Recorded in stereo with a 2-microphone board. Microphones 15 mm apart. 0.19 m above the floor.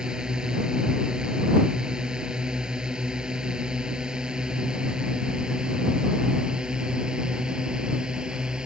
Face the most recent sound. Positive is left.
turn(degrees=-65)  # may be behind; listen again after turning